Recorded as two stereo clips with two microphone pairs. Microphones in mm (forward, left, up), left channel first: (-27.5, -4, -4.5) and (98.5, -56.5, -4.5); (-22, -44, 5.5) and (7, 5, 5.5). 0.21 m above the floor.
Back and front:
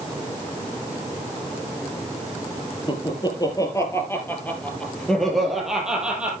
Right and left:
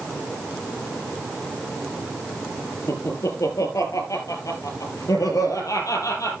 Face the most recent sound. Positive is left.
turn(degrees=-105)